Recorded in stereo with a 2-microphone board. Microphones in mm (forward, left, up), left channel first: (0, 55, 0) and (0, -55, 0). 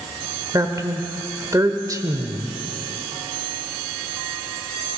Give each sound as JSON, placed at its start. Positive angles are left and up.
{"t": 0.5, "sound": "a woman speaking", "side_deg": -30, "distance_m": 1.2}